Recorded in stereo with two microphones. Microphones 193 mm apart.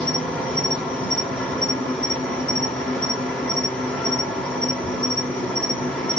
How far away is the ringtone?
I don't hear a ringtone.